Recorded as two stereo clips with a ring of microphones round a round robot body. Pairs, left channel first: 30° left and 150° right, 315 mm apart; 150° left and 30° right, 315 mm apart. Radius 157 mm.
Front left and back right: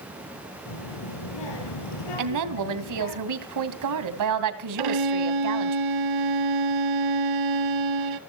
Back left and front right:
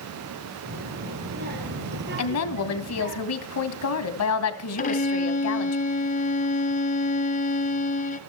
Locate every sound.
0.7 s a child speaking: 35° left, 6.5 m; by 3.2 s 25° left, 5.5 m
2.2 s a woman speaking: 175° right, 2.5 m
4.8 s a violin: 145° right, 1.6 m